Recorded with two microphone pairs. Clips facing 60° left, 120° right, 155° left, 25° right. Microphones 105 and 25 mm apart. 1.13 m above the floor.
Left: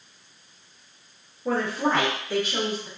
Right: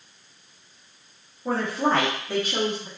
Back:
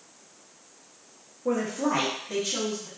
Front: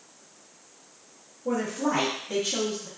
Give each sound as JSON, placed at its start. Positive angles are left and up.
{"t": 1.4, "sound": "a woman speaking", "azimuth_deg": 170, "distance_m": 0.8}